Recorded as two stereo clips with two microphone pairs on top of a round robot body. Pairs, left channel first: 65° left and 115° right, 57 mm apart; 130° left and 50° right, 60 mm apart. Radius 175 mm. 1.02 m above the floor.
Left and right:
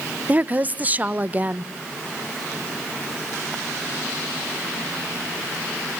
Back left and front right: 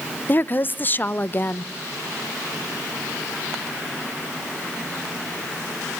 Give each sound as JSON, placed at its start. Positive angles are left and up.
{"t": 0.3, "sound": "a woman speaking", "azimuth_deg": -175, "distance_m": 1.0}